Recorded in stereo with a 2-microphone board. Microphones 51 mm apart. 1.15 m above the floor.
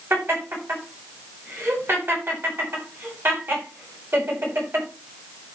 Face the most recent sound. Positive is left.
turn(degrees=-45)  # may be behind; listen again after turning